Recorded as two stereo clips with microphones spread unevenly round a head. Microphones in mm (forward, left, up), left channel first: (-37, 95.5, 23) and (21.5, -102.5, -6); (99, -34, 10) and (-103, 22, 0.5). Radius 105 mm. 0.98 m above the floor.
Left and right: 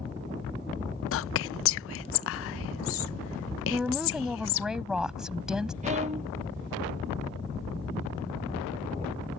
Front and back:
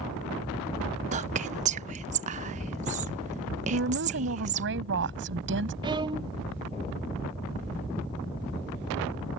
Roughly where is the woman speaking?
Behind.